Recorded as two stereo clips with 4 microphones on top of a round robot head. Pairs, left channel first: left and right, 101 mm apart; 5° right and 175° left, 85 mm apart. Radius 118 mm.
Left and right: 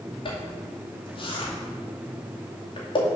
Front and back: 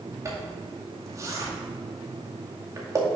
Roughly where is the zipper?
Behind left.